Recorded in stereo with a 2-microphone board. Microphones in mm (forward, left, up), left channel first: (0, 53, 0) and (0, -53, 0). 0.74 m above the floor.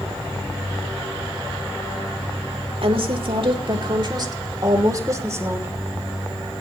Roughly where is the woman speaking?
Right.